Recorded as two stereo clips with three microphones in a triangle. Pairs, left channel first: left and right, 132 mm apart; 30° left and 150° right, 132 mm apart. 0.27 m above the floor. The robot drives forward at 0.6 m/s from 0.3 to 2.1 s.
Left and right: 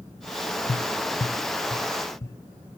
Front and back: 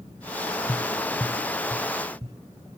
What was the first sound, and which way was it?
Tapping, 105° left.